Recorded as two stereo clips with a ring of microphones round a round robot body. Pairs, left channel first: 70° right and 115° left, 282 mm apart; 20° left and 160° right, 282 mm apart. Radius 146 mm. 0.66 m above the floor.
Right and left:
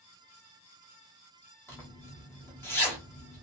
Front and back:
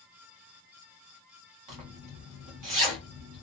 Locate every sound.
1.7 s a zipper: 150° right, 1.7 m